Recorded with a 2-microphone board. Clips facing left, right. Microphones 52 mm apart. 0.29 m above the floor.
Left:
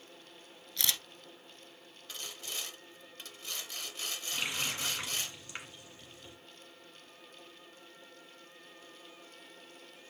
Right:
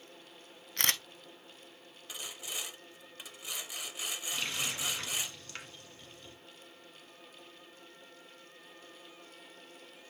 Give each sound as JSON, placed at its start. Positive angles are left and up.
{"t": 0.8, "sound": "a camera shutter", "side_deg": -45, "distance_m": 0.6}
{"t": 2.1, "sound": "sawing", "side_deg": -10, "distance_m": 0.6}
{"t": 4.3, "sound": "a running tap", "side_deg": 15, "distance_m": 1.8}